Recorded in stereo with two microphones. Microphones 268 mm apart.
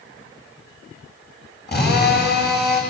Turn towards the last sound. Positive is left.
turn(degrees=40)  # may be behind; listen again after turning